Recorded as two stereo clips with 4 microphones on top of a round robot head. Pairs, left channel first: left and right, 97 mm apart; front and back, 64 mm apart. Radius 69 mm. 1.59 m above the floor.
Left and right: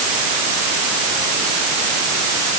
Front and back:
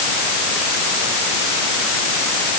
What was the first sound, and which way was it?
Only background noise.